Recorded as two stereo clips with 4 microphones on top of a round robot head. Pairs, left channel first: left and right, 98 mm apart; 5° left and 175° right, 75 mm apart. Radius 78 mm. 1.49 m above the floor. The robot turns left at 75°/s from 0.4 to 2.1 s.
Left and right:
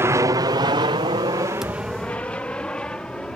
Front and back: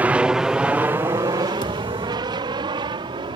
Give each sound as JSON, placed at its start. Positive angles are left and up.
{"t": 0.0, "sound": "an aircraft", "azimuth_deg": -125}
{"t": 1.6, "sound": "a thud", "azimuth_deg": -5}